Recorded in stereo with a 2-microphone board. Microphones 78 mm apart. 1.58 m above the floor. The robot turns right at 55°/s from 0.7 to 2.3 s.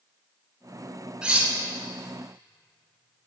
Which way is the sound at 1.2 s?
10° right (ahead or behind).